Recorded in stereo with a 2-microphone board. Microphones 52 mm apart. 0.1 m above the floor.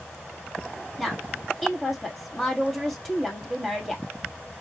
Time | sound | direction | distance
1.0 | a woman speaking | 5° left (ahead or behind) | 2 m